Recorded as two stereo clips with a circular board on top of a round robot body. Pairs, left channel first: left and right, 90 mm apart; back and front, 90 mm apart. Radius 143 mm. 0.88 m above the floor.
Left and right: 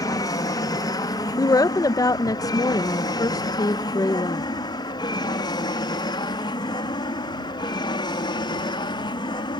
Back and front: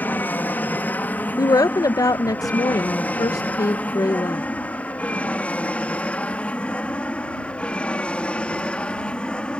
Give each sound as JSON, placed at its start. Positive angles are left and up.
{"t": 0.0, "sound": "an aircraft", "azimuth_deg": 115}
{"t": 1.4, "sound": "a woman speaking", "azimuth_deg": 135}